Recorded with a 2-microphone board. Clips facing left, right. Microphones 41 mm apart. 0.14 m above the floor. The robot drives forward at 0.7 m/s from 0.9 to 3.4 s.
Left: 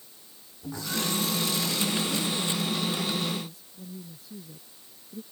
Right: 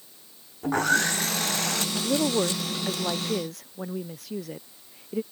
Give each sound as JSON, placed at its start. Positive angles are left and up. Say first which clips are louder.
{"t": 0.6, "sound": "sawing", "louder": "right 9 dB", "side_deg": -55}
{"t": 1.9, "sound": "a woman speaking", "louder": "right 5 dB", "side_deg": -85}